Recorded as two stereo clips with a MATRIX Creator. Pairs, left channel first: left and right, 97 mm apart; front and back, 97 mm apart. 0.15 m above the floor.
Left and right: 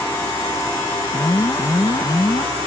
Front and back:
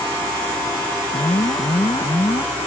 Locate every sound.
1.1 s an alarm: 40° left